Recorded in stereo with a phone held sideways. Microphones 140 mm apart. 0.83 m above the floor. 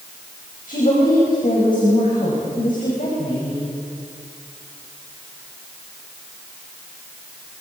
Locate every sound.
0.7 s a woman speaking: 80° left, 5.5 m